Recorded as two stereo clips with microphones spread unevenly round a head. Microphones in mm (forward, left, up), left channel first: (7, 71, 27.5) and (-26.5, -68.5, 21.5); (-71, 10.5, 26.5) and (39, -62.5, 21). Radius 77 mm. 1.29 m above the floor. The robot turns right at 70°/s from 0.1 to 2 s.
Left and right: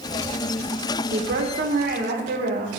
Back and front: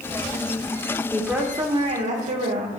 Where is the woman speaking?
125° right, 1.5 m; by 2.8 s 65° right, 1.5 m.